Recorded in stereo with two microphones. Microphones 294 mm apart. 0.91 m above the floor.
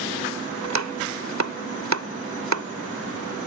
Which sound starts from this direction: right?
Chopping, at 0.6 s.